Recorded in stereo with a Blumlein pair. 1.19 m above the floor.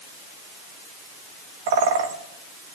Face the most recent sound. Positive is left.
turn(degrees=-50)